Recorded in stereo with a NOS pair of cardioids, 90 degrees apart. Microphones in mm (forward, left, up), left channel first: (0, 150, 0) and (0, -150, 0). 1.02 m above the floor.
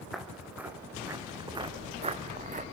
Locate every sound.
0.1 s footsteps: straight ahead, 4.5 m; by 2.6 s 30° right, 4 m